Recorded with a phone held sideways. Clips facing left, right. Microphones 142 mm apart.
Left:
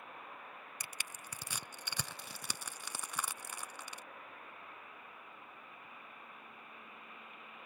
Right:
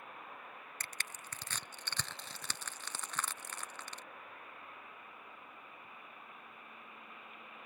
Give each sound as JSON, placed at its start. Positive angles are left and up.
{"t": 0.8, "sound": "crushing", "side_deg": 10}